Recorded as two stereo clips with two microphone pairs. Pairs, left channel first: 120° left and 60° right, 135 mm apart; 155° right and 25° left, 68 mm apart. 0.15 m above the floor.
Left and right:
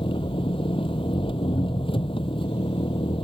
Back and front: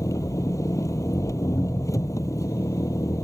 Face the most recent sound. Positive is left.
turn(degrees=170)